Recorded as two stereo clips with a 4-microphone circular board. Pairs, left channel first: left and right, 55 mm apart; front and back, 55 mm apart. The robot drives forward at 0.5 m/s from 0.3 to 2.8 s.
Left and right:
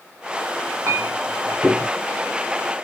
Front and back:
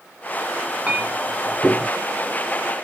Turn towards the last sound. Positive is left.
turn(degrees=-135)